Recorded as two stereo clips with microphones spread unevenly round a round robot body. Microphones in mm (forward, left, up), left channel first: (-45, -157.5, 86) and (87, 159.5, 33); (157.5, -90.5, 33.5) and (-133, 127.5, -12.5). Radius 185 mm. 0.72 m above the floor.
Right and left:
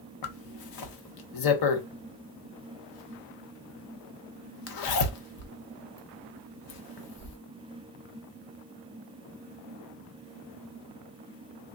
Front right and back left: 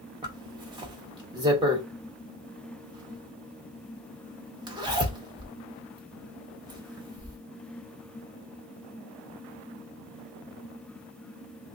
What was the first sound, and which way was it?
A zipper, 140° right.